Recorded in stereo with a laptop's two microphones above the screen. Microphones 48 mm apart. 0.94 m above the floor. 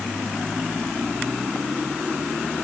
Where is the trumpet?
I don't hear a trumpet.